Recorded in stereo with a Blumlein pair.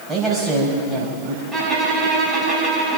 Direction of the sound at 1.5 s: 15° right.